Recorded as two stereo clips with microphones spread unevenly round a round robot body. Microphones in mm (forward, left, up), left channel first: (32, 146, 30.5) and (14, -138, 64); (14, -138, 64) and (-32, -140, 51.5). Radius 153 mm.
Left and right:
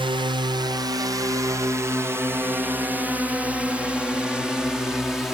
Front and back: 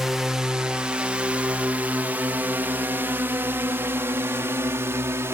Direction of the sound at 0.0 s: 160° right.